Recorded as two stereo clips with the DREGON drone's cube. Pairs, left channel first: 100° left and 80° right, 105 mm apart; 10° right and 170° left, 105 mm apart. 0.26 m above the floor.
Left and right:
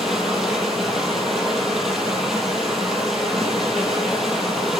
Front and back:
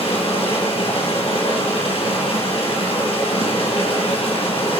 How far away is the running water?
About 6.5 m.